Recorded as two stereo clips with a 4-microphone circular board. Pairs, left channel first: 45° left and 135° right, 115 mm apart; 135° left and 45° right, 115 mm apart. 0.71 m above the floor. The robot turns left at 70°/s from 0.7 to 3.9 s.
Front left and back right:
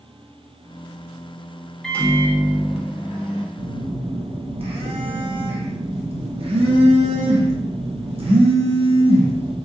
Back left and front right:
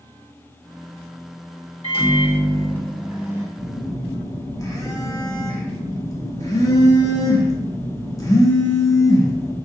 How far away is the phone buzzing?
About 0.7 m.